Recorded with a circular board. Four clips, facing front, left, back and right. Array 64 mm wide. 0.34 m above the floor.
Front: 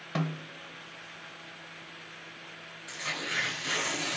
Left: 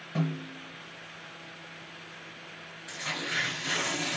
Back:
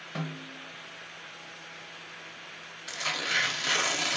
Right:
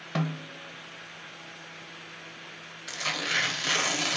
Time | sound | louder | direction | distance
0.1 | a snare drum | even, front 4 dB | 60° right | 0.6 m
2.9 | tearing paper | right 3 dB, back 4 dB | 125° right | 0.8 m